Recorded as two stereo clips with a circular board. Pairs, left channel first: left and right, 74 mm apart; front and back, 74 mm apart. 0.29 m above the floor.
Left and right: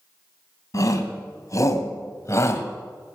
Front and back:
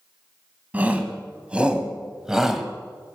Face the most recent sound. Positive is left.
turn(degrees=95)